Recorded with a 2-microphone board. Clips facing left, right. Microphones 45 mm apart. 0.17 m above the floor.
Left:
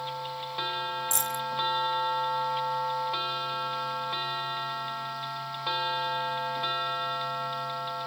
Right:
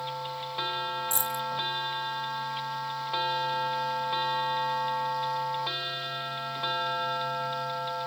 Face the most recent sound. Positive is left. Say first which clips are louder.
# even
turn(degrees=60)  # may be behind; listen again after turning